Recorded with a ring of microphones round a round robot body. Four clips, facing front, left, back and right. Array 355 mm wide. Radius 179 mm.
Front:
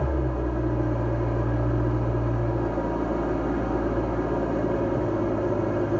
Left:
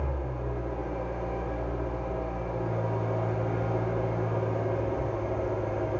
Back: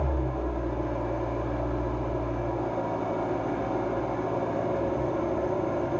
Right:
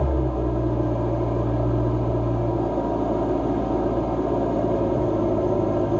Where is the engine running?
70° right, 2 m.